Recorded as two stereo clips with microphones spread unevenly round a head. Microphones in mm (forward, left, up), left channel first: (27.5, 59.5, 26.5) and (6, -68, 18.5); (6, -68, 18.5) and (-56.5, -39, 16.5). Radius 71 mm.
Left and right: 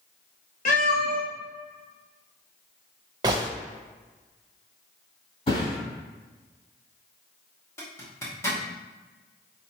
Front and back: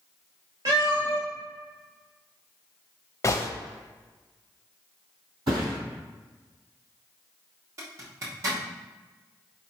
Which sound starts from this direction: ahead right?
A gunshot, at 3.2 s.